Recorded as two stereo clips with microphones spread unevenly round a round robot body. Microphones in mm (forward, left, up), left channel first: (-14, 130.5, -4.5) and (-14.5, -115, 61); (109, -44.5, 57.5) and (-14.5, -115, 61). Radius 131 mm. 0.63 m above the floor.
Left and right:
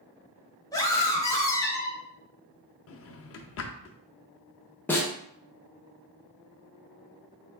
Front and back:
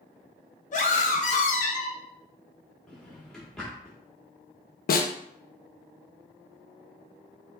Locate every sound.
0.7 s a scream: 30° left, 0.9 m
2.9 s a drawer: 115° left, 0.5 m
4.9 s a snare drum: 5° left, 0.6 m